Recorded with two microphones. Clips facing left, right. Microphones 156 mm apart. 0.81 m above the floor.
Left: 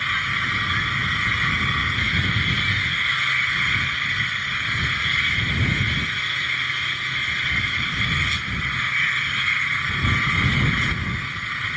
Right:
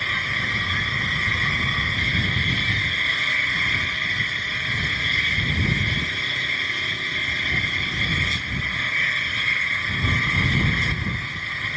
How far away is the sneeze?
I don't hear a sneeze.